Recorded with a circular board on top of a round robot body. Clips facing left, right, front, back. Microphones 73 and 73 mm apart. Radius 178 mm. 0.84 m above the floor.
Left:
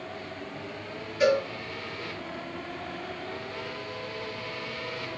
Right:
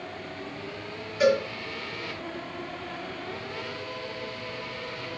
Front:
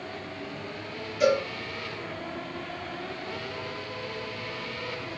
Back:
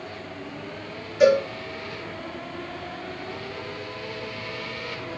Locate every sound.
1.2 s a cowbell: 160° right, 7 m